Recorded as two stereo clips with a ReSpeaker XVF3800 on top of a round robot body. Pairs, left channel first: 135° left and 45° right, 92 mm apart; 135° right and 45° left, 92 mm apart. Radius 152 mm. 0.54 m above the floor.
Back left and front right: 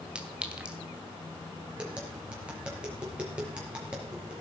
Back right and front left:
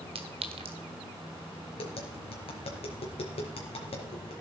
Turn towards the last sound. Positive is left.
turn(degrees=-125)